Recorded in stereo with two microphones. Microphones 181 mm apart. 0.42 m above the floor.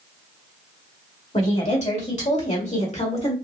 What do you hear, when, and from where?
1.3 s a woman speaking: 40° left (ahead or behind), 2 m; by 3.4 s 35° left (ahead or behind), 1.4 m